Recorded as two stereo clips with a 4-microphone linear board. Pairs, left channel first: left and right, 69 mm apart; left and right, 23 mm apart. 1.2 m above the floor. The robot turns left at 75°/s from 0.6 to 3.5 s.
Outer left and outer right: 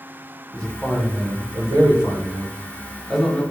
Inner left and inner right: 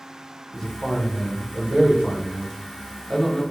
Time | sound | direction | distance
0.5 | a man speaking | 15° left | 1.1 m